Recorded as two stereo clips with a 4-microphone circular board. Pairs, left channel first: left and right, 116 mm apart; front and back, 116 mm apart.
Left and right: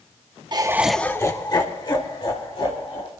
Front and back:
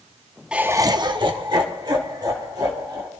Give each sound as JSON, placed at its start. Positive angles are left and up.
{"t": 0.5, "sound": "laughter", "azimuth_deg": -105, "distance_m": 0.8}